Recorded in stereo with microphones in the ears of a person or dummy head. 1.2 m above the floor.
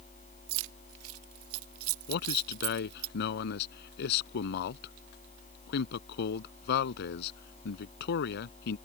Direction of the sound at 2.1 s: 60° left (ahead or behind).